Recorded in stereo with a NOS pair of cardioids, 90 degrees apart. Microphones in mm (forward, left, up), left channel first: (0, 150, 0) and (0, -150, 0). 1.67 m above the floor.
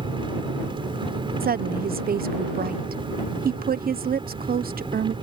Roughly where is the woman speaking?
Ahead right.